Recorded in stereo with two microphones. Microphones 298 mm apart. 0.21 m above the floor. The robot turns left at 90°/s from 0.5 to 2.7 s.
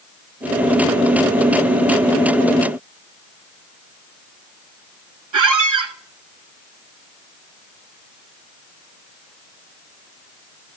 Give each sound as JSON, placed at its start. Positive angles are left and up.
{"t": 5.3, "sound": "a squeak", "side_deg": -80, "distance_m": 0.6}